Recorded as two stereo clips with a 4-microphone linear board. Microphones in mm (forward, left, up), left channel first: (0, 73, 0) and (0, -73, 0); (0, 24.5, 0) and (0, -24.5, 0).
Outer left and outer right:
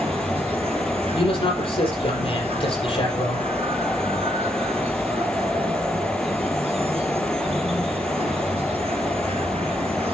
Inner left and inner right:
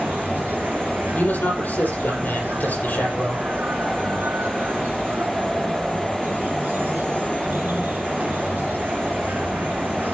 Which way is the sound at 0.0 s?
45° right (ahead or behind).